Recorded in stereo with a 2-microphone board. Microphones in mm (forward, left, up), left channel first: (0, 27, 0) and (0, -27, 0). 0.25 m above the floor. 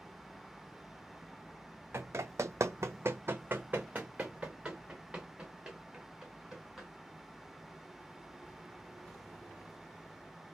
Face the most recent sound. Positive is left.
turn(degrees=-5)  # may be behind; listen again after turning